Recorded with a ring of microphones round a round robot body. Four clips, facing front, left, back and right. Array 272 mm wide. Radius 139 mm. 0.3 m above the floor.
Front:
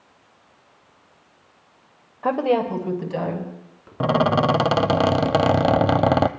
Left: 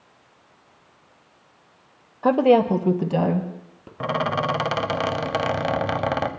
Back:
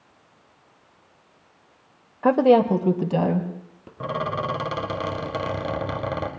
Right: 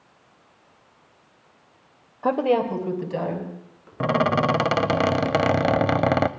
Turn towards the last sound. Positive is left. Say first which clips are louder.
# right 3 dB, front 8 dB
turn(degrees=-25)